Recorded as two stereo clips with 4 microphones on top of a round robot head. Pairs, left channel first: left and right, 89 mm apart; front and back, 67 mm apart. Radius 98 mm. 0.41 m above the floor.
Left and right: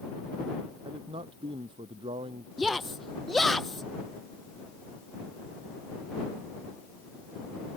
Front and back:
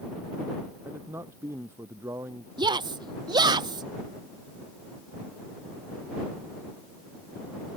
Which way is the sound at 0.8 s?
120° right.